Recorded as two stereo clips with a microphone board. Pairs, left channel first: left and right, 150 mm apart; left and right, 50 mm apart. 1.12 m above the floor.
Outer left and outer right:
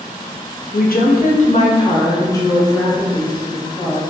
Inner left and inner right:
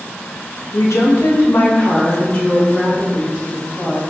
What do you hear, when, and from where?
0.7 s a woman speaking: 80° left, 0.6 m; by 4.0 s centre (ahead or behind), 1.6 m